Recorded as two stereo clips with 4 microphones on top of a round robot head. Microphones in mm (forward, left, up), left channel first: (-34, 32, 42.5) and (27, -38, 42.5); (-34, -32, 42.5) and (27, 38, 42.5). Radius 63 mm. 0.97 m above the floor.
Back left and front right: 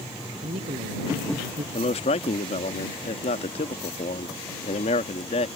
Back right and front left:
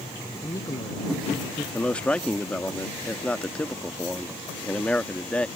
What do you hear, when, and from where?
0.4 s a man speaking: 70° right
1.7 s a man speaking: 150° left